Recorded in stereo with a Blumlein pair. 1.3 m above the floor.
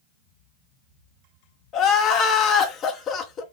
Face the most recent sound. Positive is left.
turn(degrees=30)